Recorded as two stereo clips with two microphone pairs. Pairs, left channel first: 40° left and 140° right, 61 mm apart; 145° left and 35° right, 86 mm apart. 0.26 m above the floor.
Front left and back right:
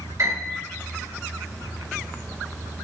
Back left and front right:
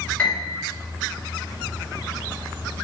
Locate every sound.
0.2 s a piano: 145° right, 1.9 m